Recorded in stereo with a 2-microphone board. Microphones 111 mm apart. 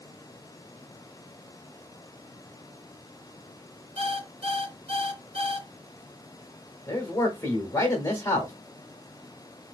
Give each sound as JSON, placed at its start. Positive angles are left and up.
{"t": 4.0, "sound": "an alarm clock", "side_deg": -55, "distance_m": 2.5}
{"t": 6.9, "sound": "a man speaking", "side_deg": 25, "distance_m": 1.0}